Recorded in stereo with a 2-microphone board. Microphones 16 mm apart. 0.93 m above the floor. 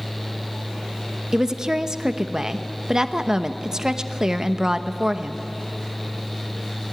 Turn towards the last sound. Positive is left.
turn(degrees=-30)  # may be behind; listen again after turning